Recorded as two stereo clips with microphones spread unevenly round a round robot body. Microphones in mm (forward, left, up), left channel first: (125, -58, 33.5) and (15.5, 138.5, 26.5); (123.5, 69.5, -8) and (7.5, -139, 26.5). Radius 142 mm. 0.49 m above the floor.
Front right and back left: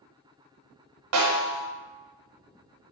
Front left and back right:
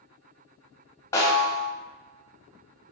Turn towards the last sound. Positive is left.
turn(degrees=145)